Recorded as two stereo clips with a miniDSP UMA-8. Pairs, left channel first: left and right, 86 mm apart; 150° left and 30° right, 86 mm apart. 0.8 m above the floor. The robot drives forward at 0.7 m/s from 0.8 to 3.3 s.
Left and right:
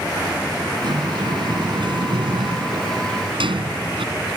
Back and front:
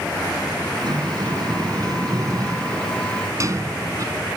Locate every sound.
0.8 s a sliding door: 65° right; by 4.1 s 80° right